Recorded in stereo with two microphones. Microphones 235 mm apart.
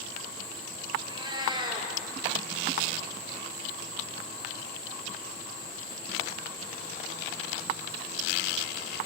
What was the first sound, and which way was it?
A cat meowing, 20° right (ahead or behind).